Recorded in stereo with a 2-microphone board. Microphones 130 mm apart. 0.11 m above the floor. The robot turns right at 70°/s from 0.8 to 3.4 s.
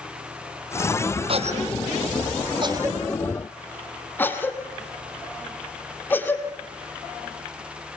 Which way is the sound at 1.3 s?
45° right (ahead or behind).